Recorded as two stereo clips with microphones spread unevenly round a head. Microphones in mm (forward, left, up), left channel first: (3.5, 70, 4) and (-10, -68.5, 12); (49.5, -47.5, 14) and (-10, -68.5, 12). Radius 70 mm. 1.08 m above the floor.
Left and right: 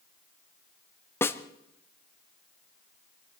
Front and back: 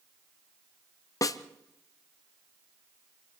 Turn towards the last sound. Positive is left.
turn(degrees=15)